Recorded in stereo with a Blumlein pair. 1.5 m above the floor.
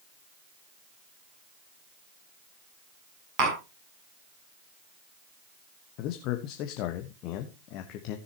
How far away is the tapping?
About 7 m.